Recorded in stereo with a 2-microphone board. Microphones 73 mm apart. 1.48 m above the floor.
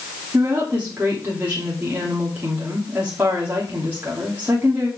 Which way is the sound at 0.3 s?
25° right (ahead or behind).